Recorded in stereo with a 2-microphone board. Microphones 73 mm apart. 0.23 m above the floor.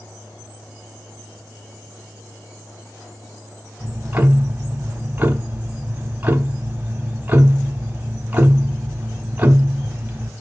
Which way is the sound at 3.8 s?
25° right (ahead or behind).